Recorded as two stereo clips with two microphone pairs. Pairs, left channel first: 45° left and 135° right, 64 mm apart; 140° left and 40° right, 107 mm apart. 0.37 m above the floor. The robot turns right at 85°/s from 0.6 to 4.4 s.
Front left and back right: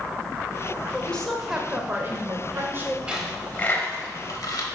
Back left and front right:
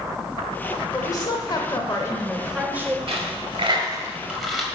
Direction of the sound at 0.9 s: 95° left.